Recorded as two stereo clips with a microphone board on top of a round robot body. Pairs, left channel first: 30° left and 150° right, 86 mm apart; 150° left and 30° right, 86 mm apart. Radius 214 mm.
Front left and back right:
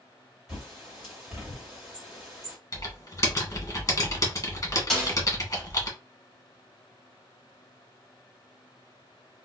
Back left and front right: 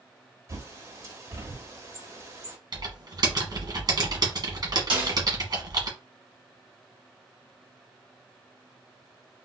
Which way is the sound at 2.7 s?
15° right.